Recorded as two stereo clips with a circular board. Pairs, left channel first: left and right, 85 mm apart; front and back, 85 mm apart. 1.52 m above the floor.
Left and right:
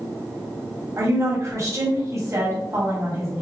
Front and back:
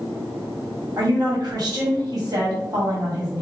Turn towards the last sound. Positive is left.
turn(degrees=-145)